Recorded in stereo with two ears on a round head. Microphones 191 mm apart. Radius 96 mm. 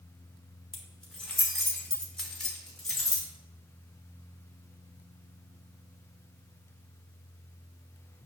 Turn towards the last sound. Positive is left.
turn(degrees=0)  # may be behind; listen again after turning